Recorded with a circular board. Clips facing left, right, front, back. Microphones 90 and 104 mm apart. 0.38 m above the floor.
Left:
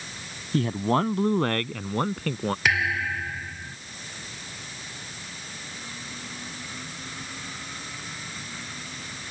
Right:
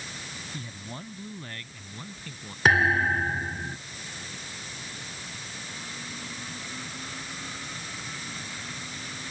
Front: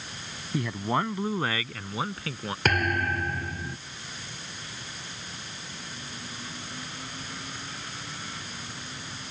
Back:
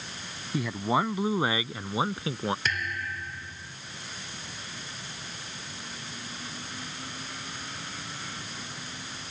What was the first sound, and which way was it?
A man speaking, 90° left.